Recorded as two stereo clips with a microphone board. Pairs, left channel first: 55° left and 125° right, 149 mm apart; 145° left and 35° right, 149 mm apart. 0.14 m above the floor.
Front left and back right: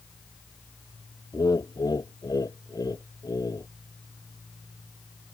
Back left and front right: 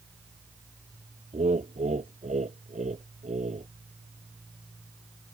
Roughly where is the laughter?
Ahead.